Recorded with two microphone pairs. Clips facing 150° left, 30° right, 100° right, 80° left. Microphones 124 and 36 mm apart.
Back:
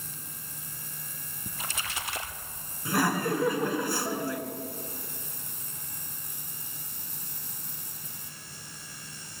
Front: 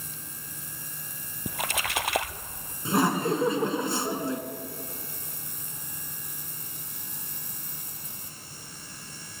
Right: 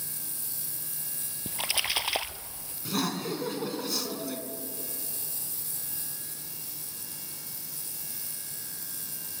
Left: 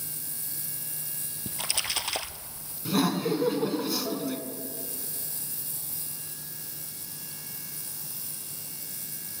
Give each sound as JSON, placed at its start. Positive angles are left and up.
{"t": 1.5, "sound": "a splash", "azimuth_deg": -25, "distance_m": 0.7}
{"t": 2.9, "sound": "laughter", "azimuth_deg": 10, "distance_m": 1.4}